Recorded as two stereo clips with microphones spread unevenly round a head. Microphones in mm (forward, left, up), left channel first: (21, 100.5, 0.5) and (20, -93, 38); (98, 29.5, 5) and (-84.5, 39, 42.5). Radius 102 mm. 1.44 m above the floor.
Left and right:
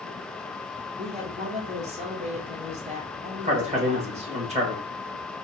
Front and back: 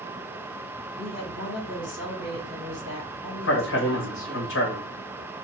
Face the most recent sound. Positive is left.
turn(degrees=-30)